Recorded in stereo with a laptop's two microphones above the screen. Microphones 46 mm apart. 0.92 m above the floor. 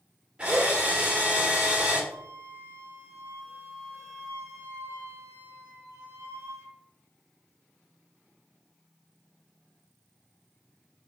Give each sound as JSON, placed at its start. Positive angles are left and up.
{"t": 0.4, "sound": "a drill", "side_deg": -20, "distance_m": 1.8}
{"t": 2.1, "sound": "a flute", "side_deg": -70, "distance_m": 0.9}